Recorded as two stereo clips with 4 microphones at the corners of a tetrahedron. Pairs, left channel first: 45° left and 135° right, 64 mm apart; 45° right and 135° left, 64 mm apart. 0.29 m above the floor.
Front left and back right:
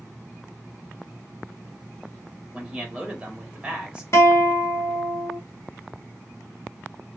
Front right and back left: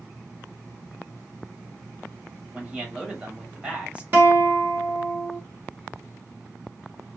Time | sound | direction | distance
2.5 | a man speaking | 175° left | 1.0 m
4.1 | a guitar | 85° left | 1.2 m